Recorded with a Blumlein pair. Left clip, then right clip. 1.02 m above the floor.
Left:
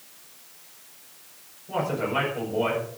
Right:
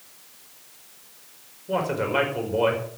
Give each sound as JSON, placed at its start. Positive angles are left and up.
{"t": 1.7, "sound": "a man speaking", "azimuth_deg": -20, "distance_m": 5.0}